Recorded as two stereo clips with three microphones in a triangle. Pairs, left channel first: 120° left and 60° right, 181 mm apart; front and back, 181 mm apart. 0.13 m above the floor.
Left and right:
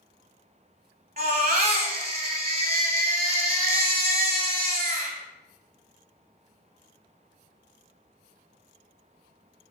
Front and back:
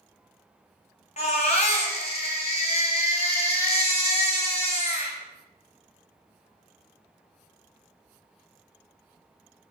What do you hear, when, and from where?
1.2 s a baby crying: 40° right, 1.1 m